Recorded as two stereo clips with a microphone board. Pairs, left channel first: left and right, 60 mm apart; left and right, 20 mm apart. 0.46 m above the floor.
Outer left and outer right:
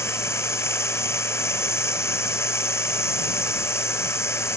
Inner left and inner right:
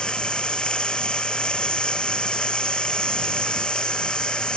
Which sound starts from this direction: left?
Running water, at 0.0 s.